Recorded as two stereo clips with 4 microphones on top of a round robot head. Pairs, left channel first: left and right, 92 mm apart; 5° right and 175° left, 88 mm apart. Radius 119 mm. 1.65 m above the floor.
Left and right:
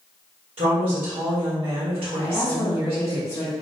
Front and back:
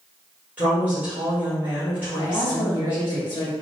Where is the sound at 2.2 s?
30° left, 0.9 m.